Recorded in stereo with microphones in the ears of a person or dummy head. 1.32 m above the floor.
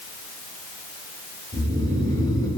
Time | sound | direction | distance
1.5 | snoring | 25° left (ahead or behind) | 5 m